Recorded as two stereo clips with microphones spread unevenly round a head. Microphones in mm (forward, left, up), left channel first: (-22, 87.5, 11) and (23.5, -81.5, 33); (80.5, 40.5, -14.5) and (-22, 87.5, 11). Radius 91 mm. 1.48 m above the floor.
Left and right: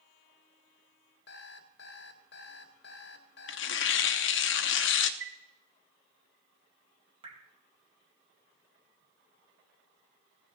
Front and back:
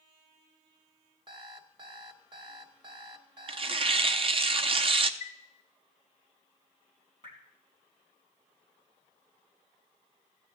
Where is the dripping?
140° right, 2 m.